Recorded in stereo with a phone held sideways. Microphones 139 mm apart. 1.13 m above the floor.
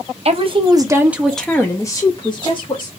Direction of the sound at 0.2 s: 45° right (ahead or behind).